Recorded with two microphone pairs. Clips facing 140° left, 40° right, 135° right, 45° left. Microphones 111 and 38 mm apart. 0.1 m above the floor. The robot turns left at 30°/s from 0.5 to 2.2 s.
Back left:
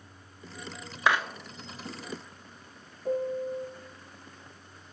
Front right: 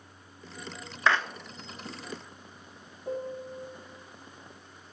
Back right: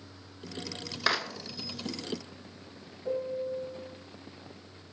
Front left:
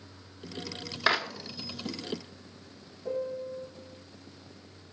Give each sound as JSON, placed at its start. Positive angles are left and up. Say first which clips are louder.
{"t": 1.1, "sound": "a clap", "louder": "even, front left 3 dB", "azimuth_deg": 90, "distance_m": 0.9}
{"t": 3.0, "sound": "a piano", "louder": "back left 6 dB, back right 1 dB", "azimuth_deg": 125, "distance_m": 3.0}